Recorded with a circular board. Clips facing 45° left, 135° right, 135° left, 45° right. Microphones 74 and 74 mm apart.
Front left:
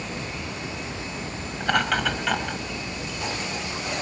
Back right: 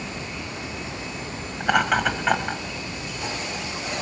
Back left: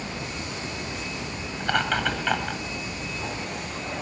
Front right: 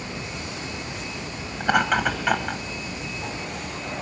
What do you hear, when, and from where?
1.6 s laughter: 80° right, 1.3 m; by 2.6 s 125° right, 1.5 m